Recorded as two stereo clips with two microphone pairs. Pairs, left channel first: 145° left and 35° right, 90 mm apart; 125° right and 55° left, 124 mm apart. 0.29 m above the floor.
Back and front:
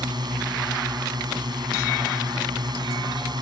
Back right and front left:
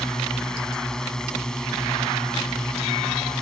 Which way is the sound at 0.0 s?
45° right.